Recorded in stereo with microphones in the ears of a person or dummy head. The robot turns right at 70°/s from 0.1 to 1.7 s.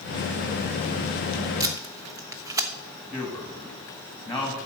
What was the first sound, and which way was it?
Tape being pulled, 25° right (ahead or behind).